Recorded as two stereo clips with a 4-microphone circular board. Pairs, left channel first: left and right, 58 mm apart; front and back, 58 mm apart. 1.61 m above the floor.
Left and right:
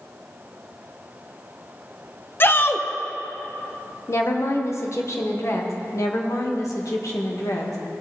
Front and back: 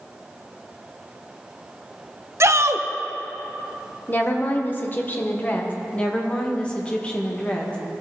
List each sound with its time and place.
2.4 s a shout: 140° left, 0.7 m
4.1 s a woman speaking: 55° left, 1.4 m
5.9 s a woman speaking: 70° left, 1.8 m